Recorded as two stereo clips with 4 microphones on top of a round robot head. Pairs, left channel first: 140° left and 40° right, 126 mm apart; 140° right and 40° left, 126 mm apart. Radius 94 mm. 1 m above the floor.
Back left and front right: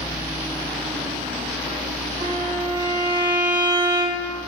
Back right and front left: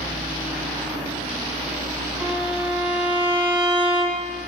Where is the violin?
35° right, 3 m.